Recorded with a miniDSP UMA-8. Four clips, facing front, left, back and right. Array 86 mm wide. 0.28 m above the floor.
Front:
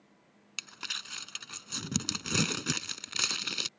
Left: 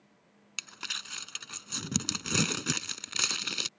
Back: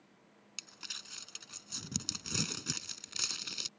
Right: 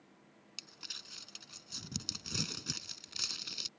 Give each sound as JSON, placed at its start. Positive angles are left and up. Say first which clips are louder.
{"t": 0.6, "sound": "crumpling", "louder": "left 14 dB, front 10 dB", "azimuth_deg": 55}